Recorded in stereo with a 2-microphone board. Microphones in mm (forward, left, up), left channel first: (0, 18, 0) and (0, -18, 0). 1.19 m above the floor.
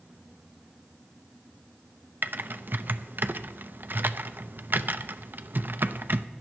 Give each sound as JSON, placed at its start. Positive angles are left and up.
{"t": 2.2, "sound": "typing on a keyboard", "side_deg": -60, "distance_m": 0.5}